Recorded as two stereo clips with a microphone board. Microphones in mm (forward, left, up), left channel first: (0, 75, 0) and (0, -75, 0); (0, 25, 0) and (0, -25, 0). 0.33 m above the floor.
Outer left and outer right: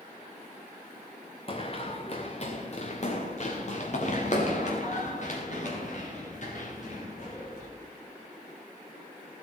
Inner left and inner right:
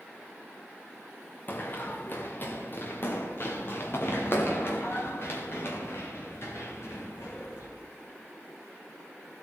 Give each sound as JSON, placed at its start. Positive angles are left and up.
{"t": 1.5, "sound": "running footsteps", "side_deg": 40, "distance_m": 2.0}